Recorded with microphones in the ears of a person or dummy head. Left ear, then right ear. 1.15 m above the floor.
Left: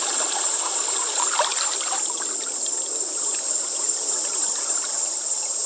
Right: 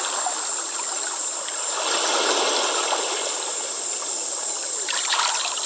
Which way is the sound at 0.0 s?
55° left (ahead or behind).